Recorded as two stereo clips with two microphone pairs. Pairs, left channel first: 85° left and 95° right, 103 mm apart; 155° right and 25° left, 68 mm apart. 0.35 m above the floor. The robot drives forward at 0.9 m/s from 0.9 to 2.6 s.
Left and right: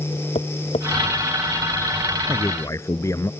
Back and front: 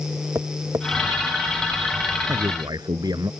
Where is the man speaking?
25° left; by 3.3 s 30° left.